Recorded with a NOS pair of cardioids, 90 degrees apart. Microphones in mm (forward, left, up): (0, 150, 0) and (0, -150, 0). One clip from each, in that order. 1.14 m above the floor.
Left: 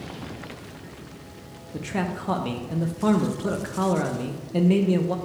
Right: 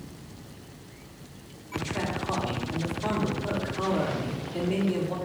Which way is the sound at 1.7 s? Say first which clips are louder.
Left 1 dB; 70° left.